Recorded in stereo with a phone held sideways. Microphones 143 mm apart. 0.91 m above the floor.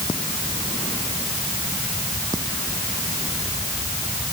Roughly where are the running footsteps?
I don't hear running footsteps.